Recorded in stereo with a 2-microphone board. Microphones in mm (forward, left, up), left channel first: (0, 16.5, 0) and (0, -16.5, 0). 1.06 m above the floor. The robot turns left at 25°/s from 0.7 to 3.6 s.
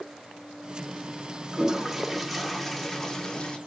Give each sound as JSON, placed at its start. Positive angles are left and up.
{"t": 1.5, "sound": "a toilet flushing", "azimuth_deg": -160, "distance_m": 0.5}